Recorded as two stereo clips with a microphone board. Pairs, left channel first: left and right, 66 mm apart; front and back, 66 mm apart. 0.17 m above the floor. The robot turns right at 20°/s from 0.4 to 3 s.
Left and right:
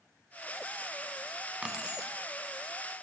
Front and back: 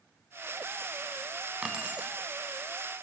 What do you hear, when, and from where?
1.6 s keys jangling: 140° right, 0.7 m; by 2.1 s 130° right, 0.7 m